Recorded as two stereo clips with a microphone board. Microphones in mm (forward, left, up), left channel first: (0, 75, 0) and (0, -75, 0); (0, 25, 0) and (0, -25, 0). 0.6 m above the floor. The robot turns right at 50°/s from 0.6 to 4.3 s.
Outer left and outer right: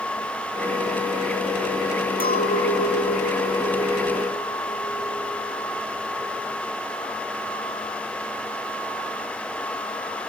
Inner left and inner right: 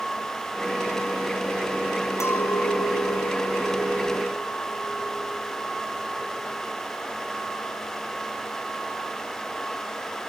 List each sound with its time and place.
2.2 s a clink: 95° left, 3 m; by 6.7 s 160° right, 3 m